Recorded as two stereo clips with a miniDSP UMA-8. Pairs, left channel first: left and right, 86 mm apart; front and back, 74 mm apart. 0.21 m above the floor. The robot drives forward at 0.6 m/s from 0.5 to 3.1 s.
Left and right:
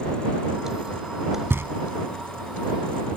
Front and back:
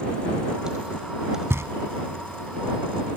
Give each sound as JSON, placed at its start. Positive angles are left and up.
{"t": 1.5, "sound": "knocking", "azimuth_deg": -140}